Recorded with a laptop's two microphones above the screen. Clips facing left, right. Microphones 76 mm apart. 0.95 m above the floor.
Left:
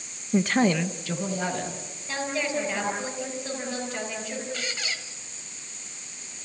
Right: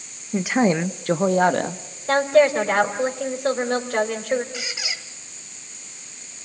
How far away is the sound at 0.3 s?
About 0.8 m.